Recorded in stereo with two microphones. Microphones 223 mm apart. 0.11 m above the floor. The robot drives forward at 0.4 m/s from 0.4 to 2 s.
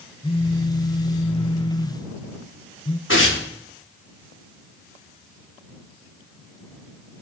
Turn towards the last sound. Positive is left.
turn(degrees=80)